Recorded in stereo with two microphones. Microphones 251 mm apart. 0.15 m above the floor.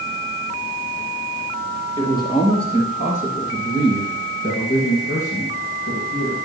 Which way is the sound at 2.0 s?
15° left (ahead or behind).